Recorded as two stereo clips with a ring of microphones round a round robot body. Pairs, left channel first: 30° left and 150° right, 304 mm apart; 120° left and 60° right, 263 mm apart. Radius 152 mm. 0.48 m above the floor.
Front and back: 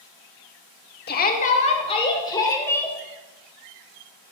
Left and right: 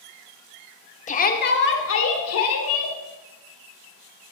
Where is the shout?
70° left, 1.2 m; by 3.0 s 115° left, 2 m.